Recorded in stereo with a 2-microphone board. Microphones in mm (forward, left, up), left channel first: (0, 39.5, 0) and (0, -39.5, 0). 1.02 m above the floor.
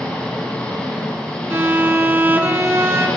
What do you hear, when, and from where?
0.0 s an engine running: 15° left (ahead or behind), 2.0 m
1.5 s a violin: 25° right (ahead or behind), 0.6 m